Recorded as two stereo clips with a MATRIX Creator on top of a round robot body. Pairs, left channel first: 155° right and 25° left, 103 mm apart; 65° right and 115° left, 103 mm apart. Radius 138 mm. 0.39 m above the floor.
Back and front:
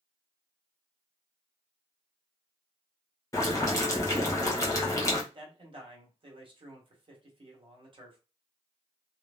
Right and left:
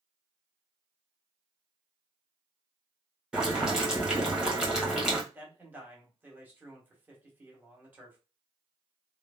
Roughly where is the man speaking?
Ahead left.